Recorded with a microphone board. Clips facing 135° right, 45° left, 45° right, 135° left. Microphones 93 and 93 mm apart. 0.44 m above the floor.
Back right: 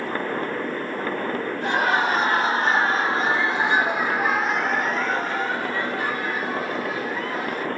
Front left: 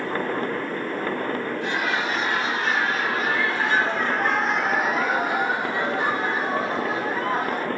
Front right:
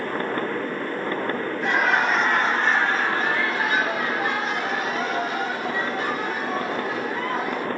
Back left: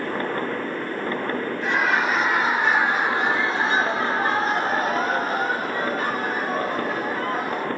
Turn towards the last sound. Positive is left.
turn(degrees=90)